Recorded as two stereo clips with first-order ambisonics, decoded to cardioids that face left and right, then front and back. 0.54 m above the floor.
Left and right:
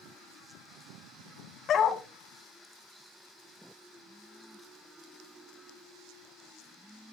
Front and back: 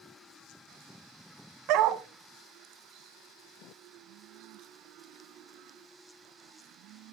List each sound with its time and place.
1.7 s a dog barking: 150° left, 1.0 m